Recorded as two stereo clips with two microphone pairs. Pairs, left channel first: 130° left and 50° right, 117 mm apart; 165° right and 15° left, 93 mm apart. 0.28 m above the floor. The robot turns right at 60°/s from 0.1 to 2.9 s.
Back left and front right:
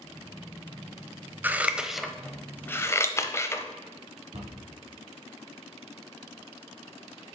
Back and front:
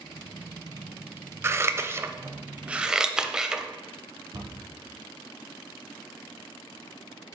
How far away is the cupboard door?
About 1.9 m.